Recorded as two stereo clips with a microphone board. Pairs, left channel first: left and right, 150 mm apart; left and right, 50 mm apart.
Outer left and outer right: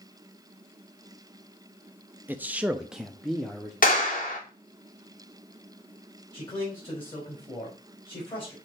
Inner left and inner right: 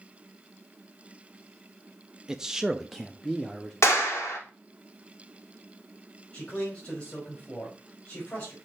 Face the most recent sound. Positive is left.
turn(degrees=35)  # may be behind; listen again after turning